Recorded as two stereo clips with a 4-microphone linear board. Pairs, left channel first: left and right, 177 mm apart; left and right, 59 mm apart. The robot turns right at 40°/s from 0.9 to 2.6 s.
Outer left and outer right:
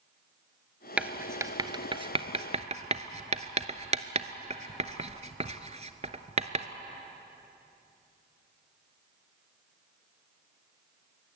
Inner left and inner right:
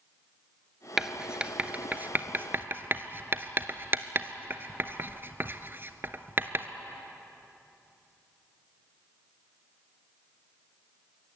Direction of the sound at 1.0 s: 5° right (ahead or behind).